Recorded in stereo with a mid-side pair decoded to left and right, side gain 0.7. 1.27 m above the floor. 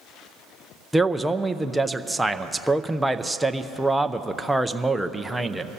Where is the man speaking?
5° right, 0.5 m.